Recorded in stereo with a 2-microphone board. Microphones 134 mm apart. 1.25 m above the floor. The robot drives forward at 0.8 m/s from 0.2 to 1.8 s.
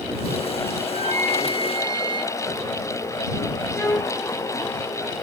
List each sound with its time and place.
0.8 s a flute: 50° right (ahead or behind), 0.8 m; by 2.4 s 40° right (ahead or behind), 1.0 m
3.7 s a violin: 25° left (ahead or behind), 2.5 m